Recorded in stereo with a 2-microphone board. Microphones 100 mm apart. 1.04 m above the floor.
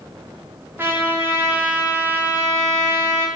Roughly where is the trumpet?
Right.